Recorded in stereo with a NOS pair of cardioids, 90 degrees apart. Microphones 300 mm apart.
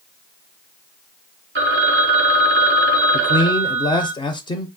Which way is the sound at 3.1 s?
15° left.